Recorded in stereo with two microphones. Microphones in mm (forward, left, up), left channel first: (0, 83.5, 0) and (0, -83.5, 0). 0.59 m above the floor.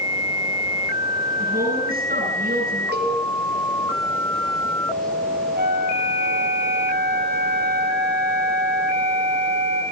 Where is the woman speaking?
65° right (ahead or behind), 9 m.